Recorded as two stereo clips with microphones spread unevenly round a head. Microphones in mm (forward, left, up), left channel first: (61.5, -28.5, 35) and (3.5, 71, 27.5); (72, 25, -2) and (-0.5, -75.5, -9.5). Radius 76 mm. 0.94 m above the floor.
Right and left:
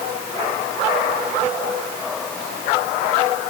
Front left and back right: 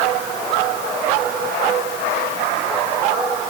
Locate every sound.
Only background noise.